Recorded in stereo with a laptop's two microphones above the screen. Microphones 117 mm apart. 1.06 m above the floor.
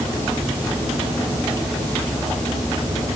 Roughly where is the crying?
I don't hear crying.